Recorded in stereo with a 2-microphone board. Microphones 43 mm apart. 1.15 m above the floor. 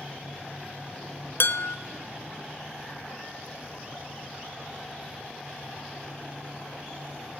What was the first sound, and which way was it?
Dishes clattering, 55° left (ahead or behind).